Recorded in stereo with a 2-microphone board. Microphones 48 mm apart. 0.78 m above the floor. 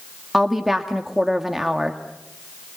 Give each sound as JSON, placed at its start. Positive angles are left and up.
{"t": 0.3, "sound": "a woman speaking", "side_deg": -5, "distance_m": 1.6}